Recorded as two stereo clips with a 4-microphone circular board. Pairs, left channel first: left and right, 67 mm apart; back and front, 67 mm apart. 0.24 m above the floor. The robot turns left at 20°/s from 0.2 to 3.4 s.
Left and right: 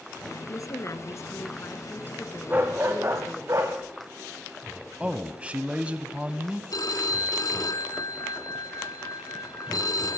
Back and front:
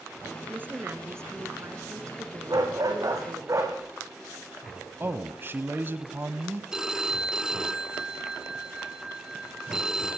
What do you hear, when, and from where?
0.5 s a woman speaking: 60° left, 3 m; by 3.5 s 5° left, 3 m
2.5 s a dog barking: 25° right, 6.5 m; by 3.8 s 45° right, 6.5 m
5.0 s a man speaking: 35° right, 1.4 m
6.7 s a phone ringing: 80° left, 1.5 m